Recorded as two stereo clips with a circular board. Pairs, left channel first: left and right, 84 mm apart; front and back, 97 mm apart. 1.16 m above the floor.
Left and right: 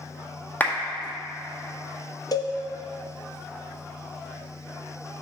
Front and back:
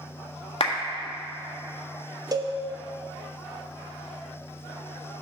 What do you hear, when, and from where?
0.6 s a clap: 20° left, 1.5 m
2.3 s a cowbell: 130° left, 0.7 m